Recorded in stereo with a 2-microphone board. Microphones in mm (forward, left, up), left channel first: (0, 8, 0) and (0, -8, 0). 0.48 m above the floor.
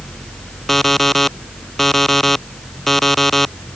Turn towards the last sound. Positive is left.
turn(degrees=15)  # may be behind; listen again after turning